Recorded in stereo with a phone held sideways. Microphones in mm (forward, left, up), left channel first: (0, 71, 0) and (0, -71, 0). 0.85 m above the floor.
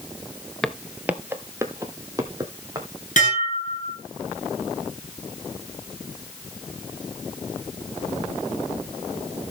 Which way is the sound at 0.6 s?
5° left (ahead or behind).